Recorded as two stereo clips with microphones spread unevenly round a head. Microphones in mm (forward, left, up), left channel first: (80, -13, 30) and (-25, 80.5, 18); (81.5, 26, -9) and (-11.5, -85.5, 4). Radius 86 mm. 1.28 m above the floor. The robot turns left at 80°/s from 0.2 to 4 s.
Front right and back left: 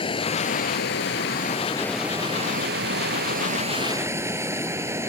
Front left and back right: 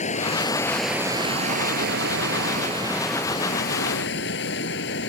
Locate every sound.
0.0 s running water: 10° left; by 5.1 s 65° left